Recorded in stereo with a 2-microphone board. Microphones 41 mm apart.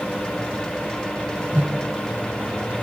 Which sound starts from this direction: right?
A whoosh, at 1.5 s.